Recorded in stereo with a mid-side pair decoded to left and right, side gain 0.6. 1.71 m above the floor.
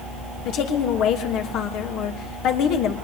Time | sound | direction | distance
0.5 | a woman speaking | 65° left | 3 m